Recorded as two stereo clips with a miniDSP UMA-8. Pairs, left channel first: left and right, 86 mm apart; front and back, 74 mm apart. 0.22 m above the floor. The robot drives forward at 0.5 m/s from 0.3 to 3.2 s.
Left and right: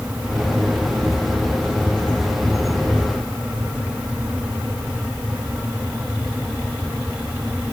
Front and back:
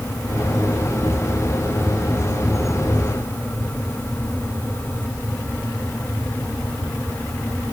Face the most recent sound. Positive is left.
No sound to turn to.